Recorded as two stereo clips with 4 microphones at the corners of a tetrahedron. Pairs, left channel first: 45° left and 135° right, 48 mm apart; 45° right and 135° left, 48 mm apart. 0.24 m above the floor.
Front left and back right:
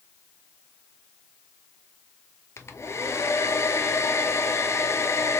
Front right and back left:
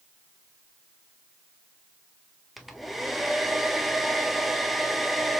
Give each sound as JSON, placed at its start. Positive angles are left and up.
{"t": 2.6, "sound": "a hair dryer", "azimuth_deg": 45, "distance_m": 0.7}